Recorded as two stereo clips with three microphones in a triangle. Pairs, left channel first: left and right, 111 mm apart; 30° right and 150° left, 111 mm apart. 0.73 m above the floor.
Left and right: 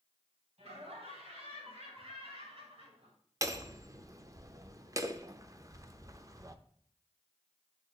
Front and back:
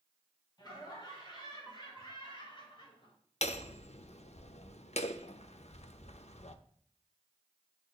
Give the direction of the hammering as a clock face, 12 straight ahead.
1 o'clock.